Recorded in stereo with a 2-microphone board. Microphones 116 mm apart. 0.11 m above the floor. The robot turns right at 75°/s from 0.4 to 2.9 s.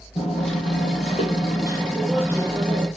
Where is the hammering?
55° left, 9.5 m; by 2.9 s 120° right, 9.5 m.